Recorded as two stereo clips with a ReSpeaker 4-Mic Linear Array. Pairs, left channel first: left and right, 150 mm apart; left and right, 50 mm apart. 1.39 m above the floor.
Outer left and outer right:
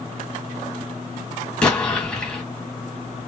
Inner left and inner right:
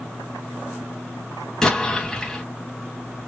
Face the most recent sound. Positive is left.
turn(degrees=10)  # may be behind; listen again after turning